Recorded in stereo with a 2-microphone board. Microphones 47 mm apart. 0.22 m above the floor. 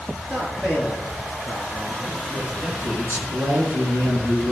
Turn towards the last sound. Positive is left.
turn(degrees=-50)  # may be behind; listen again after turning